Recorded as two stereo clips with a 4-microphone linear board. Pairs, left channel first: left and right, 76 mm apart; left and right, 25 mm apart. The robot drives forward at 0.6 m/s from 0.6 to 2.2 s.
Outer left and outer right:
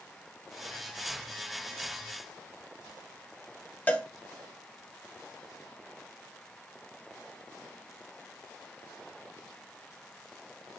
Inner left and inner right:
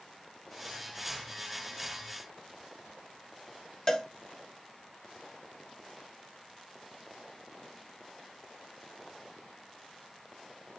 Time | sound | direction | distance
3.9 | a cowbell | 25° left (ahead or behind) | 0.8 m